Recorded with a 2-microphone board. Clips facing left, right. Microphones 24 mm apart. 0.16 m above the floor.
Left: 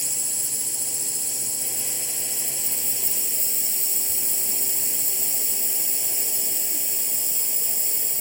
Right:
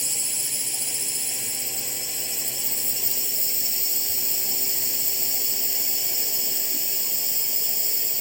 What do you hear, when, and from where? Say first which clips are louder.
0.0 s a drone: right 1 dB; 35° right (ahead or behind)